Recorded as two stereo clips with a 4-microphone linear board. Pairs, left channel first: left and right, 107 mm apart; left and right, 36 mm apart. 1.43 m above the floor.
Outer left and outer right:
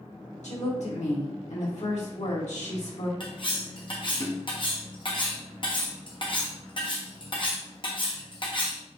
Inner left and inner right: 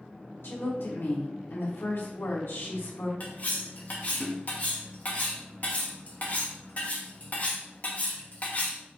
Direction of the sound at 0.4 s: 85° left.